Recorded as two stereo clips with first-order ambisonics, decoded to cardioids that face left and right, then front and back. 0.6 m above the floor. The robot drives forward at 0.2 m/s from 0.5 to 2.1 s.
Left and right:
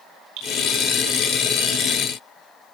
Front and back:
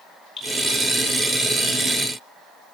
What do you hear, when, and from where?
0.4 s dripping: 90° right, 8.5 m